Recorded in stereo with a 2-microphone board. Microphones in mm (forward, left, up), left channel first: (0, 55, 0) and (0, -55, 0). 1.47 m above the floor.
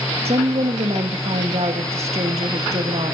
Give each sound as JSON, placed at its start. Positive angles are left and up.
{"t": 0.2, "sound": "a woman speaking", "side_deg": -70, "distance_m": 1.8}